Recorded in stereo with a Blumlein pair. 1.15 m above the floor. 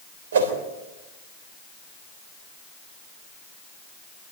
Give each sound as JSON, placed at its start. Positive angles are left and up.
{"t": 0.3, "sound": "a whoosh", "azimuth_deg": -60, "distance_m": 3.5}